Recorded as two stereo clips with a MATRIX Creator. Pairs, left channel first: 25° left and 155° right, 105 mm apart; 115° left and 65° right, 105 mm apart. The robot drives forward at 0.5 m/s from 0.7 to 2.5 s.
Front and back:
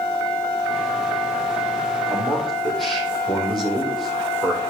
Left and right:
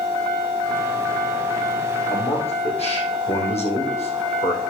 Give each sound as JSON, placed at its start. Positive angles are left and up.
{"t": 2.1, "sound": "a man speaking", "azimuth_deg": 110, "distance_m": 4.0}